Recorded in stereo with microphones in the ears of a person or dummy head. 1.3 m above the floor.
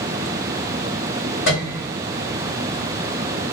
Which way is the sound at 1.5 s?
55° left (ahead or behind).